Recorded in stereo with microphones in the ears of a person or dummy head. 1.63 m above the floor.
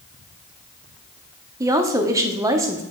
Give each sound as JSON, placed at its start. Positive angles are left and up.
{"t": 1.6, "sound": "a woman speaking", "side_deg": -15, "distance_m": 0.8}